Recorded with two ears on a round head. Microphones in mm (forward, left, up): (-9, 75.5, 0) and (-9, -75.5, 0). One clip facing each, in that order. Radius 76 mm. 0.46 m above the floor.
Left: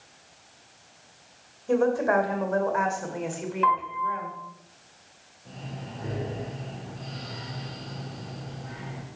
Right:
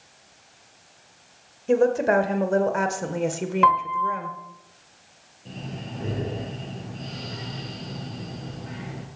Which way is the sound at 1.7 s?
25° right (ahead or behind).